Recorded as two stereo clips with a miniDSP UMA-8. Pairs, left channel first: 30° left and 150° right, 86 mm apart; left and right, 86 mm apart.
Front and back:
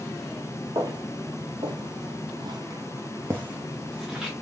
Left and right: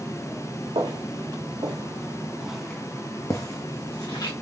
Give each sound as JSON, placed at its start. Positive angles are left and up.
{"t": 0.8, "sound": "footsteps", "azimuth_deg": -105, "distance_m": 1.4}